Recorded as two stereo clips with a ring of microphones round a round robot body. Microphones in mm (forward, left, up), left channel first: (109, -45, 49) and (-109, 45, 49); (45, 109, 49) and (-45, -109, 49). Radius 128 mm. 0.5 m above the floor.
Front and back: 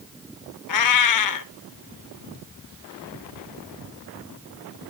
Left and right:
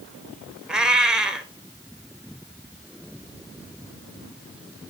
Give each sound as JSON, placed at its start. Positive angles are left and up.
{"t": 0.7, "sound": "a cat meowing", "azimuth_deg": -25, "distance_m": 0.9}